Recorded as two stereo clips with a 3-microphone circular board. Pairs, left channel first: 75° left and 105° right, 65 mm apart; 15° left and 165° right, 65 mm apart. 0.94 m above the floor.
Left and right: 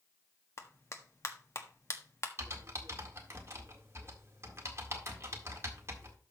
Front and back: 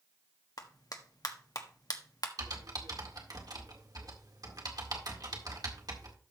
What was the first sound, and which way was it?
A clap, 30° left.